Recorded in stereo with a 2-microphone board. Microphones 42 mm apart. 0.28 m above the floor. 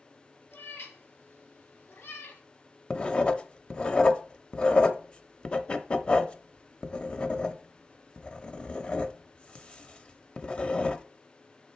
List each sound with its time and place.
0.5 s a cat meowing: 85° left, 2 m; by 2.4 s 65° left (ahead or behind), 1.2 m
2.9 s writing: 25° left (ahead or behind), 0.7 m